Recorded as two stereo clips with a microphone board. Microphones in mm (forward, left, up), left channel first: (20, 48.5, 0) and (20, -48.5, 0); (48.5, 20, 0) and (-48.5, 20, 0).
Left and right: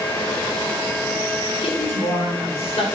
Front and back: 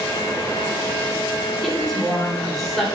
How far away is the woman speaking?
About 4 m.